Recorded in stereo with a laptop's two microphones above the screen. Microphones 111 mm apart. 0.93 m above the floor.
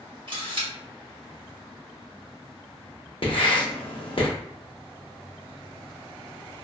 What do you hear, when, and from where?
0.3 s a camera shutter: 55° right (ahead or behind), 1.1 m
3.2 s writing: 55° left (ahead or behind), 0.7 m